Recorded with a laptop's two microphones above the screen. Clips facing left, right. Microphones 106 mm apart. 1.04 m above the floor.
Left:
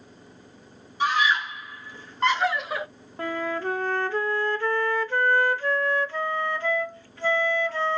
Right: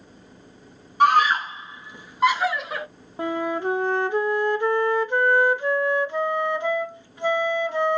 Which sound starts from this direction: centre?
A flute, at 3.2 s.